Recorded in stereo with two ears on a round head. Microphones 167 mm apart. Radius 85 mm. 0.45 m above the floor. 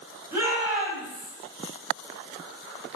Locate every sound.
0.3 s a shout: 15° right (ahead or behind), 3.5 m; by 1.3 s 5° right (ahead or behind), 3.5 m